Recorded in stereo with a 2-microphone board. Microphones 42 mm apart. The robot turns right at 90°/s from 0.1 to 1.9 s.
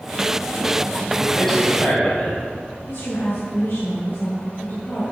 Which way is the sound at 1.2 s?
20° right.